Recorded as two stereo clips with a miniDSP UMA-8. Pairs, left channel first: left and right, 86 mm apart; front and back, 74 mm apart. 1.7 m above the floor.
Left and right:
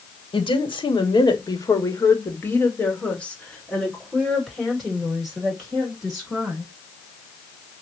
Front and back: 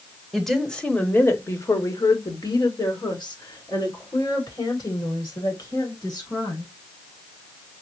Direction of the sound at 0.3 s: 90° left.